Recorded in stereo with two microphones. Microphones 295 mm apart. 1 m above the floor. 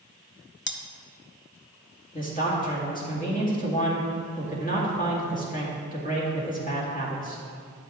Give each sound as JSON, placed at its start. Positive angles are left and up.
{"t": 0.7, "sound": "cutlery clinking", "side_deg": 40, "distance_m": 0.6}
{"t": 2.1, "sound": "a man speaking", "side_deg": 25, "distance_m": 2.5}